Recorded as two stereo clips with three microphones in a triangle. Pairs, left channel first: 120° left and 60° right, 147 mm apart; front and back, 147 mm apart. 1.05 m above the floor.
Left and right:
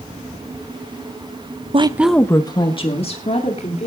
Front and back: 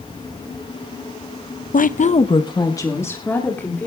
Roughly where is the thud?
No thud in this recording.